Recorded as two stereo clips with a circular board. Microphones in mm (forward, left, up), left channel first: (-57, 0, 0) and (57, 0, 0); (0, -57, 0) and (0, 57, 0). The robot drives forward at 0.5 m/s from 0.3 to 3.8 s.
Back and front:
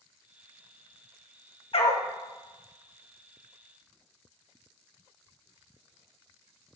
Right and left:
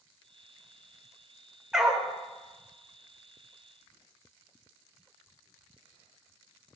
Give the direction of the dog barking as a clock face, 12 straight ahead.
6 o'clock.